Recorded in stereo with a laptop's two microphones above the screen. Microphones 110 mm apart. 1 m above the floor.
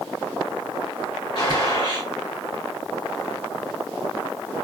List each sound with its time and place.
1.4 s a gunshot: 45° left (ahead or behind), 1.8 m